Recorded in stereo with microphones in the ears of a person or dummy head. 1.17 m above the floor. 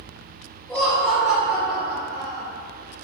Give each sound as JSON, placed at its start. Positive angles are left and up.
{"t": 0.7, "sound": "laughter", "side_deg": 10, "distance_m": 0.5}